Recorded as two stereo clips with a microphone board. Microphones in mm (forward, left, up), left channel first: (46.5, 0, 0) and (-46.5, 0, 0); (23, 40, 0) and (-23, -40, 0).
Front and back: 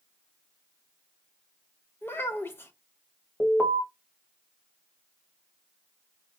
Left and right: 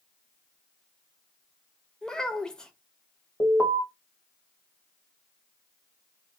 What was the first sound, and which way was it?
A child speaking, 15° right.